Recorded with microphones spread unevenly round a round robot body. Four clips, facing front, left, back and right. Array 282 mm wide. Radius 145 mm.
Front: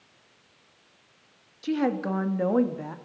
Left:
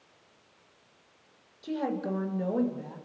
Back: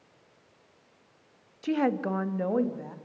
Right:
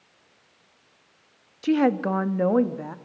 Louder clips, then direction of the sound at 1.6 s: Right 10 dB, front 1 dB; 95° right.